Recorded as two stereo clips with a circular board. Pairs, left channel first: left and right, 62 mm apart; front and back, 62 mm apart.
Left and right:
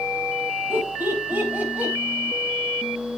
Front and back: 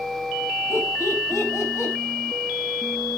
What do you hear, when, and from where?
0.7 s laughter: 35° right, 4 m; by 1.9 s 25° right, 4.5 m